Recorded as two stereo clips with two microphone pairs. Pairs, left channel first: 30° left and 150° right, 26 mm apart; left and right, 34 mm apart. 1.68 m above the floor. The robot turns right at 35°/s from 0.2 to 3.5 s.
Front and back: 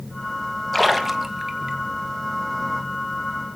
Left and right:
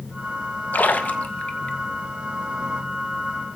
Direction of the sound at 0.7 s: 115° left.